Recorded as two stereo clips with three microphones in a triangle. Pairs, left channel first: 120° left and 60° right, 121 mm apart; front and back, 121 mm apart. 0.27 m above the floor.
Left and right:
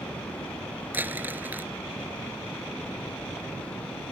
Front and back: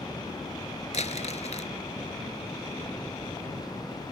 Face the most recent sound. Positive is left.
turn(degrees=15)